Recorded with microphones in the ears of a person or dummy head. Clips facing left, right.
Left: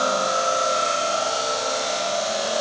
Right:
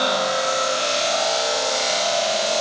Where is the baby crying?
No baby crying in this recording.